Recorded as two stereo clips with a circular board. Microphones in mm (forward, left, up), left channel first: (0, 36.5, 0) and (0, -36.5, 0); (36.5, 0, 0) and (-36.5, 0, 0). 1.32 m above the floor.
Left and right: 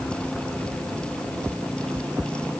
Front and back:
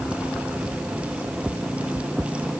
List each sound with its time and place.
Only background noise.